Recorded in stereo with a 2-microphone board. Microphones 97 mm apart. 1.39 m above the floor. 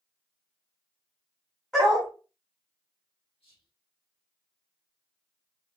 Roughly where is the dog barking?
Centre.